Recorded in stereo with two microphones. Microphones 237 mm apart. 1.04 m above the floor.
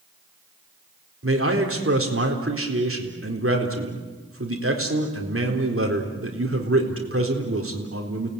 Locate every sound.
1.2 s a man speaking: 60° right (ahead or behind), 4 m